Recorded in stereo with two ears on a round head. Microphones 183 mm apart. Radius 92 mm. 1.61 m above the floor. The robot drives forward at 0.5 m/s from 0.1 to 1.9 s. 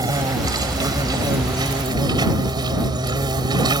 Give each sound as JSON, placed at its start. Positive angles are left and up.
{"t": 0.0, "sound": "an insect", "side_deg": -20}